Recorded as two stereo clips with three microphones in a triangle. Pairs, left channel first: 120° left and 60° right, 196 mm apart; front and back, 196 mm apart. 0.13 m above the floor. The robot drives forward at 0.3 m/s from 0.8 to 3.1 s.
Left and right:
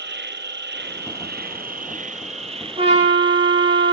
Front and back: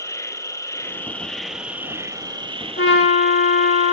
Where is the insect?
75° right, 0.8 m; by 3.9 s 125° right, 0.9 m.